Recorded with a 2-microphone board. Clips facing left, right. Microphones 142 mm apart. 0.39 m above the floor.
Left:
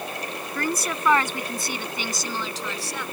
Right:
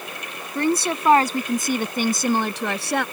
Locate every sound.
0.6 s a woman speaking: 25° right (ahead or behind); by 3.0 s 70° right (ahead or behind)